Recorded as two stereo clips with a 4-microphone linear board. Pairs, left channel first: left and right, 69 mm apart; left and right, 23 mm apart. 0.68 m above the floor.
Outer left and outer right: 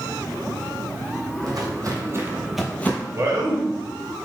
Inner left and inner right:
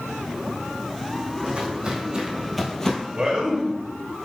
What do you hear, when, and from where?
1.4 s footsteps: 60° right (ahead or behind), 1.3 m; by 3.0 s 30° left (ahead or behind), 0.8 m
3.1 s a man speaking: 45° right (ahead or behind), 0.9 m